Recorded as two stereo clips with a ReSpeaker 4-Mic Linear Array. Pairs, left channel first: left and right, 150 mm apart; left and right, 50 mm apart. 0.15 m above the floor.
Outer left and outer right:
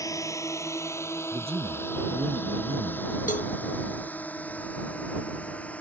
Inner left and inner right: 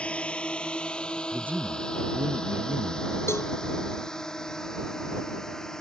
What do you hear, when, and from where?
0.0 s a drone: 20° left (ahead or behind); by 5.8 s 10° left (ahead or behind)
1.3 s a man speaking: 40° right (ahead or behind)
3.3 s a cowbell: 60° left (ahead or behind)